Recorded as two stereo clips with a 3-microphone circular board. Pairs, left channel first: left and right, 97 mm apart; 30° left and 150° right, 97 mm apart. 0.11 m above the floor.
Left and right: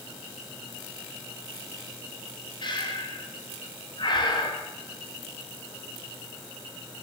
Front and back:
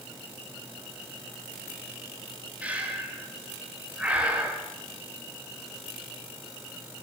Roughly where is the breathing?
Behind left.